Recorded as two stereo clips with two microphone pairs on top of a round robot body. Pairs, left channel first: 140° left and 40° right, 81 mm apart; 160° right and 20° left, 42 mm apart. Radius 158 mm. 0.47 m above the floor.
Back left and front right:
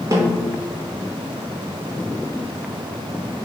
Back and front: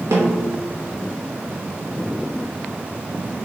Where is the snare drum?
10° left, 0.8 m.